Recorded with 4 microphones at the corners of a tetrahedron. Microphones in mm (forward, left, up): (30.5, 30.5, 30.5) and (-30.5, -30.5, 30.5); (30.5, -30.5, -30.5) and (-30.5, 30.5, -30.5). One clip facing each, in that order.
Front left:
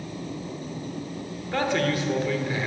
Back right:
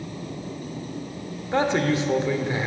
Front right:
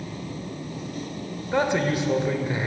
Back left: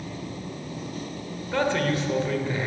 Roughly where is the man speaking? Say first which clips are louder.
Back right 3 dB, front right 1 dB; right.